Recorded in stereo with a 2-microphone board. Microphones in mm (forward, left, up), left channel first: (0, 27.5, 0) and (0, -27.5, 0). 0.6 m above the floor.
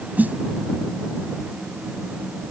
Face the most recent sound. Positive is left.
turn(degrees=-30)  # may be behind; listen again after turning